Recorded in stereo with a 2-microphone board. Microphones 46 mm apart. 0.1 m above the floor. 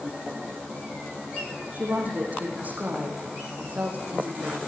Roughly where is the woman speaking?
Right.